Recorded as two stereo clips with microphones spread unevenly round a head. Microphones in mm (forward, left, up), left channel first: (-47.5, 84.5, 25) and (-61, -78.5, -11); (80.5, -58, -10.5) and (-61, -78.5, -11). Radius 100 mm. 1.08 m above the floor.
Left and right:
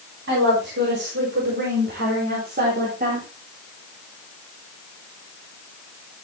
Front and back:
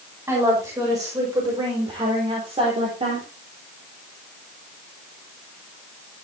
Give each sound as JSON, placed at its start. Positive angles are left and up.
{"t": 0.3, "sound": "a woman speaking", "azimuth_deg": -100, "distance_m": 6.0}